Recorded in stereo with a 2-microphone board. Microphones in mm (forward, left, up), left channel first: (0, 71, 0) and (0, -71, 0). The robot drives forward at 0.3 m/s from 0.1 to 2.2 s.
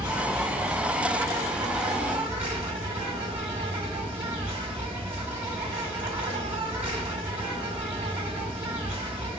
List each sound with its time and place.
0.0 s an insect: 15° right (ahead or behind), 1.8 m; by 9.4 s 10° right (ahead or behind), 2.5 m